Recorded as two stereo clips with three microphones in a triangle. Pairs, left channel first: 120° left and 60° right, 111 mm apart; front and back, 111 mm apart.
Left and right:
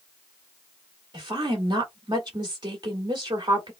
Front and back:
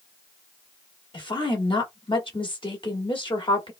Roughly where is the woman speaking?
Ahead right.